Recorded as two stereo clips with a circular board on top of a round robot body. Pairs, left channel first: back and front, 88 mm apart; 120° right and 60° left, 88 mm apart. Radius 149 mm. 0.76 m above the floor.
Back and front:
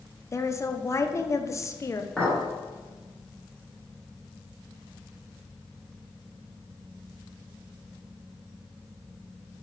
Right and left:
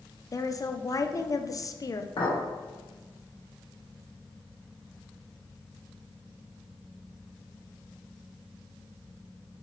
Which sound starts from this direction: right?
A clink, at 2.2 s.